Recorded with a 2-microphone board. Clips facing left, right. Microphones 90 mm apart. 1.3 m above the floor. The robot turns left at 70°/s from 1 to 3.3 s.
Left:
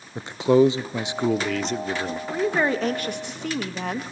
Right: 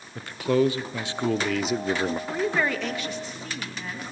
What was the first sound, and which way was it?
A man speaking, 40° left.